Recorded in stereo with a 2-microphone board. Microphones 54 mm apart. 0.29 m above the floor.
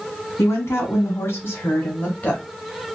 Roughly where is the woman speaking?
Left.